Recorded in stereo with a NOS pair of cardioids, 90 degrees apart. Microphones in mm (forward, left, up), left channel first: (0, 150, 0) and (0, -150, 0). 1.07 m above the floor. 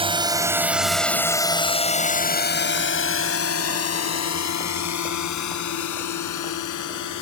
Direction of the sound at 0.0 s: 15° right.